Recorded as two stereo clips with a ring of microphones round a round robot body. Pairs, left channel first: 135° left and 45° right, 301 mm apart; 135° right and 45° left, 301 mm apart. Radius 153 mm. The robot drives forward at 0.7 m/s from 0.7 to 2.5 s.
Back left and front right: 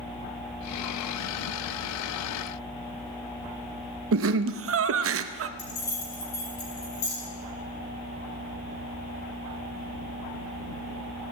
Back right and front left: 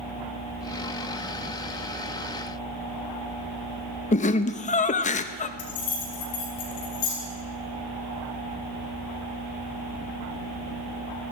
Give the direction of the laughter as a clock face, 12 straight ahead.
2 o'clock.